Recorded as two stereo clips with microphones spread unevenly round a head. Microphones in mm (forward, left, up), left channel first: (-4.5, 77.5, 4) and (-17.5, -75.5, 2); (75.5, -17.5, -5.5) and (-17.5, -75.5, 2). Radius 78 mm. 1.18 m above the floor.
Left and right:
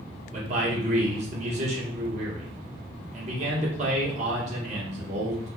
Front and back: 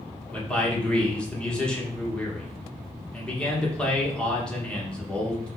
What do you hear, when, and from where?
0.3 s a man speaking: 50° right, 1.6 m